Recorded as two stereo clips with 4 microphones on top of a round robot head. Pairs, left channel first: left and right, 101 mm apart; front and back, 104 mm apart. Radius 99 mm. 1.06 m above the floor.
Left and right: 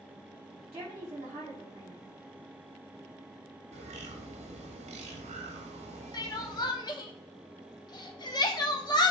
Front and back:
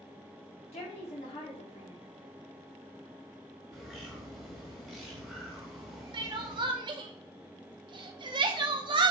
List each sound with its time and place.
0.7 s a woman speaking: 30° right, 3.5 m
3.7 s a bird: 90° right, 1.3 m
6.1 s crying: 135° left, 0.9 m